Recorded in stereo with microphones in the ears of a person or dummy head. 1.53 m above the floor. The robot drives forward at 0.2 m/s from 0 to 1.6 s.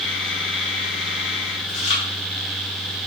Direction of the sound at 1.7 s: 35° left (ahead or behind).